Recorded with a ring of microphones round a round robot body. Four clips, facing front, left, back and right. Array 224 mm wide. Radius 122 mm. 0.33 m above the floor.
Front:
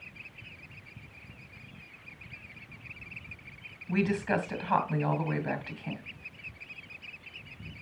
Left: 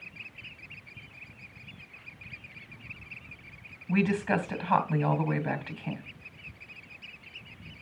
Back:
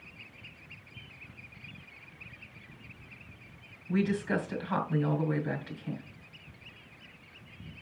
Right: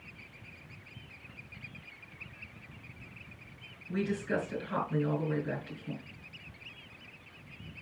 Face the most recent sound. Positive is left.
turn(degrees=60)